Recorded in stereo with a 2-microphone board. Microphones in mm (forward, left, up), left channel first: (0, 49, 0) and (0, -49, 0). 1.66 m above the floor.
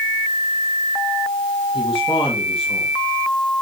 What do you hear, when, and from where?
1.7 s a man speaking: 60° left (ahead or behind), 3.5 m